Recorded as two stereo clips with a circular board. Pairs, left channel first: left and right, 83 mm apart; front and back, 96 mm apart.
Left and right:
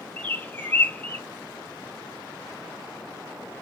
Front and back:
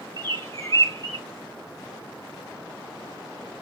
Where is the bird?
35° left, 1.3 m.